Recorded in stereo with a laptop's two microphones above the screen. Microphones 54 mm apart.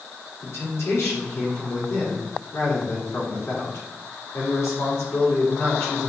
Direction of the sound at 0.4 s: 60° left (ahead or behind).